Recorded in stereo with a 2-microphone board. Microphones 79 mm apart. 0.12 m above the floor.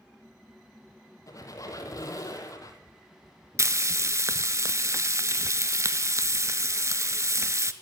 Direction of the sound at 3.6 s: 40° right (ahead or behind).